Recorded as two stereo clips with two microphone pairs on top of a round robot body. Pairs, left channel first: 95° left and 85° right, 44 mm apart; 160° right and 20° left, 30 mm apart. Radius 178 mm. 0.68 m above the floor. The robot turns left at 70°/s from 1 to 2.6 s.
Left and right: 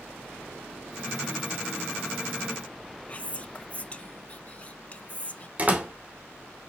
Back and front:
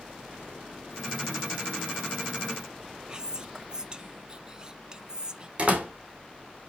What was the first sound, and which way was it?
Whispering, 55° left.